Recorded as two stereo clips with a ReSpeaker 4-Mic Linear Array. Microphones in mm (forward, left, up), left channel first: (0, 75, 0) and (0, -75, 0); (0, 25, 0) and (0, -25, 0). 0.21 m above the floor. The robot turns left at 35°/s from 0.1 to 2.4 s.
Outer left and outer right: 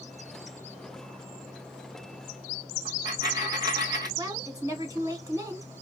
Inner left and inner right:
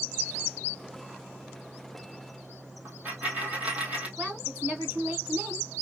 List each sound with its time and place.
2.9 s a dropped coin: 25° right (ahead or behind), 1.1 m
4.2 s a woman speaking: 25° right (ahead or behind), 1.7 m